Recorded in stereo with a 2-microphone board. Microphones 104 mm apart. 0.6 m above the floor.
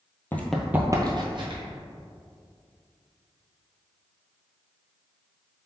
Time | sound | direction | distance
0.3 | running footsteps | 20° left (ahead or behind) | 0.7 m